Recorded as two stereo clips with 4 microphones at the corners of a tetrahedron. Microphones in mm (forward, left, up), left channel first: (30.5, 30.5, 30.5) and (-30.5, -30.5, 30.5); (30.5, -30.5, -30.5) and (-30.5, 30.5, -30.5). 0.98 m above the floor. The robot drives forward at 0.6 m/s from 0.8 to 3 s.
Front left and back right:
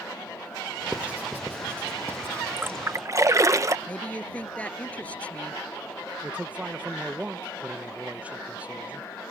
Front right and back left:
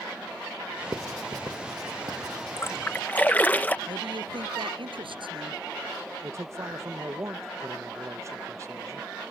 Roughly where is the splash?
Right.